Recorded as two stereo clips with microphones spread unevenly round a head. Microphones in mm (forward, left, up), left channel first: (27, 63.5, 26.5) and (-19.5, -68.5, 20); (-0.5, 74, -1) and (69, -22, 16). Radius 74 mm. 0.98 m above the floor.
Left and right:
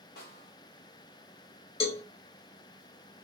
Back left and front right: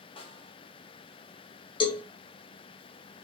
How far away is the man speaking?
No man speaking in this recording.